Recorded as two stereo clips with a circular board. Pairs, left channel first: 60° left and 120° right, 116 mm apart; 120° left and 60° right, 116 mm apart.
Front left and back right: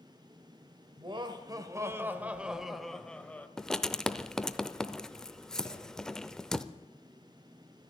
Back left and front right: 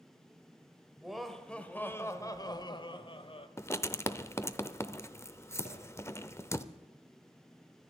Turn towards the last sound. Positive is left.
turn(degrees=135)